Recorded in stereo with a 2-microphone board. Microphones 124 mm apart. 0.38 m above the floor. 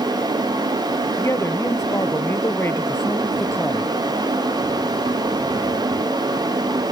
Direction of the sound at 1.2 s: 25° left (ahead or behind).